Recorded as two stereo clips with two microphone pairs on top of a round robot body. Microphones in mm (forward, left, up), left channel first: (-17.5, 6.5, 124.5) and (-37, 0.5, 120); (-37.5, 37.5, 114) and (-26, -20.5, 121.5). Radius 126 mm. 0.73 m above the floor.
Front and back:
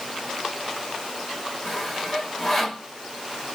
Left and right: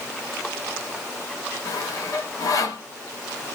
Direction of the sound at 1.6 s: 105° left.